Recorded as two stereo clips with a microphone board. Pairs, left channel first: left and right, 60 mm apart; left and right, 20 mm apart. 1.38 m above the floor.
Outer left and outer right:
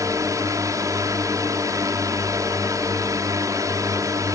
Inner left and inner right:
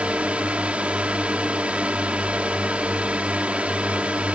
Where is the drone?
70° right (ahead or behind).